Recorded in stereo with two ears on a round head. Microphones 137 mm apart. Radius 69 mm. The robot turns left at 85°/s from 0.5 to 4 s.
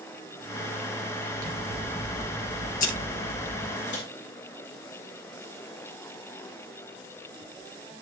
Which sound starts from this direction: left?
A microwave, at 3.9 s.